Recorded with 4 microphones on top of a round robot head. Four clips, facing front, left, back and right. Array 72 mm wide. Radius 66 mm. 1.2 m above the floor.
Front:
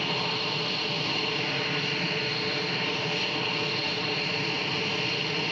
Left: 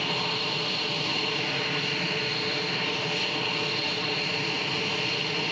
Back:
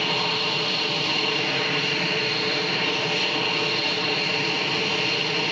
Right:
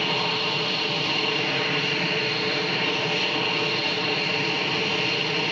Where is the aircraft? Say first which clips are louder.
Right 4 dB, back 5 dB; 140° right.